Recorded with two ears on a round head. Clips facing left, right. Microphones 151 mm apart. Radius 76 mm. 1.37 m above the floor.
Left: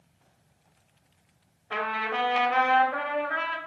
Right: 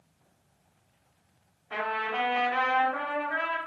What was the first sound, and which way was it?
A trumpet, 55° left (ahead or behind).